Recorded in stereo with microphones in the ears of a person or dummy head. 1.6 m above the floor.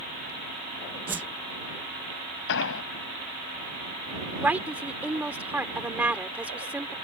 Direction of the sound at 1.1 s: 10° right (ahead or behind).